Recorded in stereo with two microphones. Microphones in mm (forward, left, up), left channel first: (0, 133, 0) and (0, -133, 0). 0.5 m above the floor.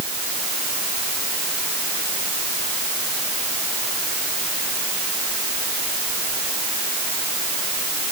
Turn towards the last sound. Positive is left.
No sound to turn to.